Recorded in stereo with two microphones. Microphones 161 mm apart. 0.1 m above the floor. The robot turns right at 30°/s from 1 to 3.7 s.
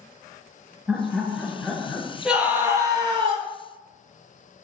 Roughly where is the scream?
Behind.